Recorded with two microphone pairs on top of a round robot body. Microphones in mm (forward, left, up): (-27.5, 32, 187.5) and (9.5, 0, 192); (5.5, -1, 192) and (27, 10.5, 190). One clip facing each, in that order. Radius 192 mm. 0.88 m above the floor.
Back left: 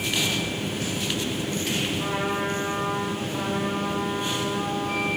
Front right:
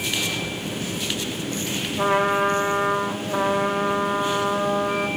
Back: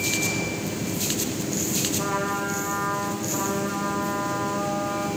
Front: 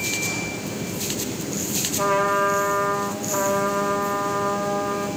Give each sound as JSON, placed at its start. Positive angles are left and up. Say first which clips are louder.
{"t": 2.0, "sound": "a trumpet", "louder": "front right 7 dB, front 6 dB", "azimuth_deg": -30, "distance_m": 2.0}